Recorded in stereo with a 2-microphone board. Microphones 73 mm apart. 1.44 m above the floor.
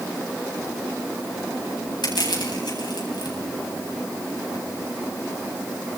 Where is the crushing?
80° left, 9.5 m.